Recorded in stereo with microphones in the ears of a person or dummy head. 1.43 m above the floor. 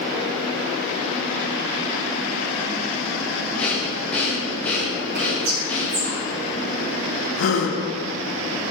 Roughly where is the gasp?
Left.